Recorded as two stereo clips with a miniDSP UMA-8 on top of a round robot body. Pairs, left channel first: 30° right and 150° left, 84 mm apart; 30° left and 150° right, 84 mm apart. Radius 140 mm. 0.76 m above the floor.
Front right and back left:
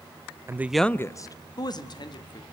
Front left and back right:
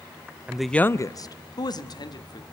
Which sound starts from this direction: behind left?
A man speaking, at 0.5 s.